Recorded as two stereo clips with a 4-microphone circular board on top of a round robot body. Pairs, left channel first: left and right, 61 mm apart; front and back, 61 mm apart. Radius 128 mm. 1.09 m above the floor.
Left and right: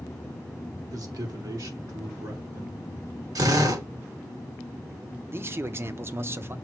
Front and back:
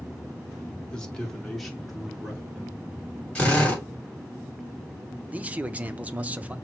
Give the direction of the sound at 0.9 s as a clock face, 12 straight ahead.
3 o'clock.